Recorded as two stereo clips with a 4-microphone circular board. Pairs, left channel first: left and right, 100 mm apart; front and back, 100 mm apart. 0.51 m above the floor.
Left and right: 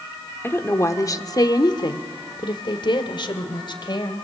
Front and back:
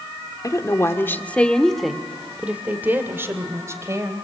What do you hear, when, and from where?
0.4 s a woman speaking: 30° left, 1.5 m; by 4.2 s 125° left, 3 m